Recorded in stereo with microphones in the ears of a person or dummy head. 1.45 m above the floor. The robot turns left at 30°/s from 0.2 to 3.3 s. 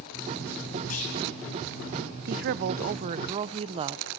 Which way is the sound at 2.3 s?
120° right.